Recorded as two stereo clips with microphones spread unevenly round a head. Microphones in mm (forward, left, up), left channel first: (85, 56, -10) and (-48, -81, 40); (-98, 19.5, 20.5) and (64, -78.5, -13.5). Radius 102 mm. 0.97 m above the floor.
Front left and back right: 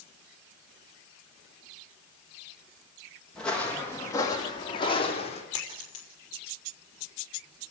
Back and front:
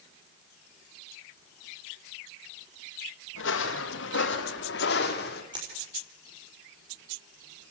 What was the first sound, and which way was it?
Footsteps, 140° left.